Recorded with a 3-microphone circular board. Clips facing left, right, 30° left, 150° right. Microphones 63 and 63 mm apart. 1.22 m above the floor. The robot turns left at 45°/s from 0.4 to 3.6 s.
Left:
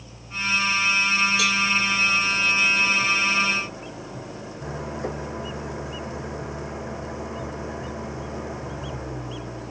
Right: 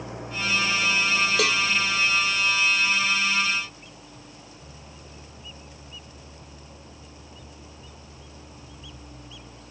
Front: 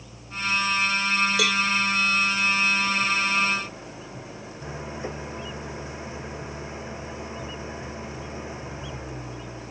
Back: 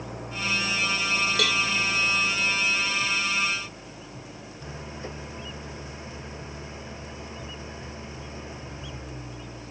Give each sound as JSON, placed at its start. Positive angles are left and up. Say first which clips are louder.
{"t": 0.0, "sound": "an engine running", "louder": "even, even", "azimuth_deg": -115}
{"t": 1.4, "sound": "a cowbell", "louder": "even, front 2 dB", "azimuth_deg": -55}